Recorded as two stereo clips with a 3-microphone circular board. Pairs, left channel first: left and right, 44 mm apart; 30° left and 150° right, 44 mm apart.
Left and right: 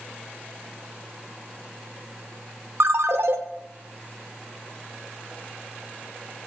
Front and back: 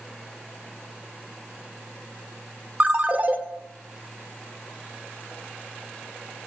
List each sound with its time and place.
2.8 s a ringtone: 90° right, 1.1 m